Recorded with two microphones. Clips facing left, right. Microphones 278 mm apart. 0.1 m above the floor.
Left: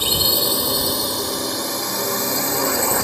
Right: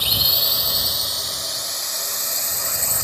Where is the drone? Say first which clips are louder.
Left 10 dB; 55° left (ahead or behind); by 3.0 s 65° left (ahead or behind).